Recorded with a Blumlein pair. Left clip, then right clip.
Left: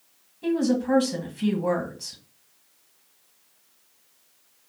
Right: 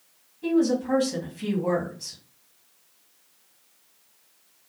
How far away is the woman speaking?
About 1.2 m.